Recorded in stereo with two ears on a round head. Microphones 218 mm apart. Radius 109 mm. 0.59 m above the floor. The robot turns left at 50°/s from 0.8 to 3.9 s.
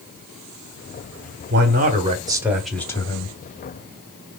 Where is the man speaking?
120° right, 1.2 m; by 3.3 s 145° left, 1.2 m.